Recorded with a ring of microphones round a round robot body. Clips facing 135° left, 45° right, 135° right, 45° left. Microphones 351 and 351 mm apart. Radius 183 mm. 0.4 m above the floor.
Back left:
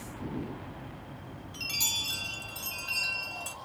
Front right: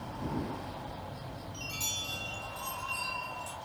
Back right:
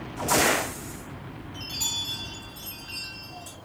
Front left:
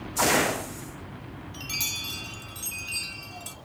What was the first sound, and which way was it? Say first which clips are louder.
A chime: even, back right 1 dB; 100° left.